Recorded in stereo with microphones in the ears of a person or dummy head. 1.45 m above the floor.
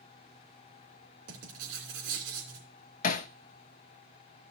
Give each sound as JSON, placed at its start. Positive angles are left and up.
{"t": 1.3, "sound": "writing", "side_deg": -85, "distance_m": 3.0}
{"t": 3.0, "sound": "hammering", "side_deg": 50, "distance_m": 0.6}